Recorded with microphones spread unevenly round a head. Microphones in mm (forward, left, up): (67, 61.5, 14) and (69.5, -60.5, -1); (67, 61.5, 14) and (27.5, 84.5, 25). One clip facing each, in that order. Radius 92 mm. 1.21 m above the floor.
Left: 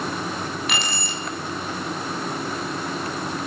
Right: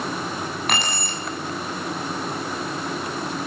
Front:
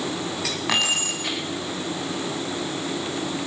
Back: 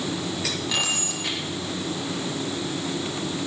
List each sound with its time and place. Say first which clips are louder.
0.7 s keys jangling: right 2 dB, front 7 dB; 50° right, 8 m